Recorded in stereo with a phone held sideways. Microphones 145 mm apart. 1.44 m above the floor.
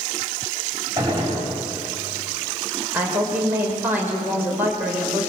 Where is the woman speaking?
15° right (ahead or behind), 5.5 m.